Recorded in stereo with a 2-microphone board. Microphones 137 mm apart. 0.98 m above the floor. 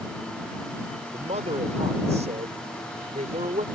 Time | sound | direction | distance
1.1 | a man speaking | 55° right (ahead or behind) | ?